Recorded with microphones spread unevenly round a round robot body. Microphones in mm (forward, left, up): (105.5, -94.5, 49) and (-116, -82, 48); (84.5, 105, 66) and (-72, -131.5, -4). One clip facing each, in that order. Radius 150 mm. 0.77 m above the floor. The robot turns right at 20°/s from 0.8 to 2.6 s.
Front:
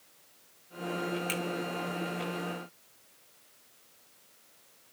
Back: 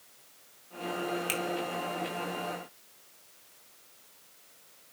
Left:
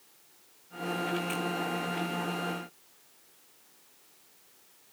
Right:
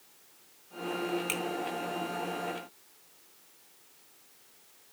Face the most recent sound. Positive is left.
turn(degrees=-80)